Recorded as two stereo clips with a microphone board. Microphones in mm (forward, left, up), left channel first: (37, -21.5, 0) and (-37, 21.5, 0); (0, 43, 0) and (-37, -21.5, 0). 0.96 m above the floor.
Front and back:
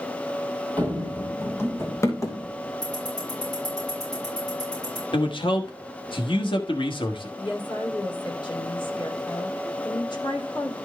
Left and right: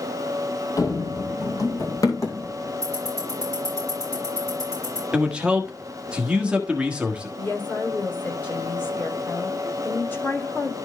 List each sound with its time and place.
0.8 s running footsteps: 40° left, 1.6 m; by 2.7 s 15° left, 3 m
2.8 s ticking: 10° left, 7 m
5.1 s a man speaking: 45° right, 1.4 m
7.4 s a woman speaking: 5° right, 2.5 m